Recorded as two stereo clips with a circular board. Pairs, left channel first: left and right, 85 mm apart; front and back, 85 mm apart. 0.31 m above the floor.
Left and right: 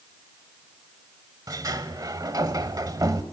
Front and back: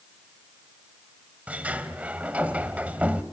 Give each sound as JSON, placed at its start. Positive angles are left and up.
{"t": 1.5, "sound": "a sliding door", "azimuth_deg": -110, "distance_m": 0.8}